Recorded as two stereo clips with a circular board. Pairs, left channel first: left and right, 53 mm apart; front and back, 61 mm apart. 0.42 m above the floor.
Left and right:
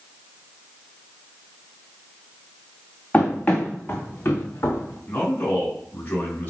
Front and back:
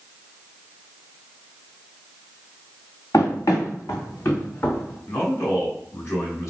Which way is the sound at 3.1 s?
20° left.